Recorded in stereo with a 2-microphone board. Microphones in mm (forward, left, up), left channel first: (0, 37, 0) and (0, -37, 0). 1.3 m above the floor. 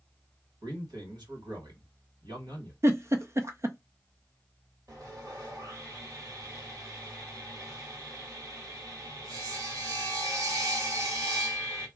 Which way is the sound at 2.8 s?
40° right (ahead or behind).